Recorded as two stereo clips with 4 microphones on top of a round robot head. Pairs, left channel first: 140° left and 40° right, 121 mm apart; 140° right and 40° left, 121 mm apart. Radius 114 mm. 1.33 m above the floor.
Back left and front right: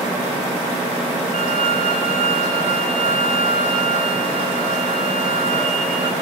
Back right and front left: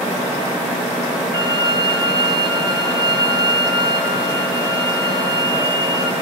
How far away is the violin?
About 3 m.